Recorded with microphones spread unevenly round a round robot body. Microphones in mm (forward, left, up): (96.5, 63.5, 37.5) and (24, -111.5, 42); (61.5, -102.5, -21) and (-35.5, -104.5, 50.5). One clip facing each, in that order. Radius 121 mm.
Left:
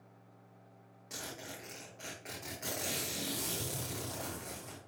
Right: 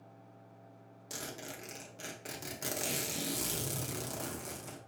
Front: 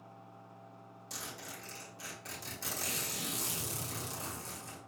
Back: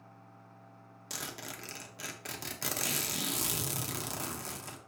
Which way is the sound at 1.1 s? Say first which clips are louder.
Right 2 dB, back 4 dB; 170° right.